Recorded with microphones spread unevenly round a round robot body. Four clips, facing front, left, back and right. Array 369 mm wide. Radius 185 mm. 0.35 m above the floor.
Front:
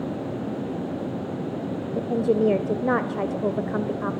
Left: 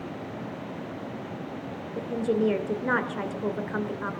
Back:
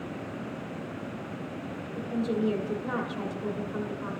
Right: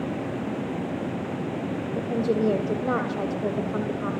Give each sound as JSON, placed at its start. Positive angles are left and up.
{"t": 1.9, "sound": "a woman speaking", "azimuth_deg": -10, "distance_m": 2.0}